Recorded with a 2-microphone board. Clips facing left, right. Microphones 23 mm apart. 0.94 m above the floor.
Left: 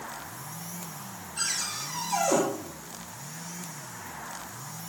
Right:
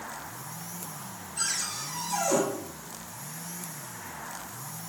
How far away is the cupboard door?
About 6 m.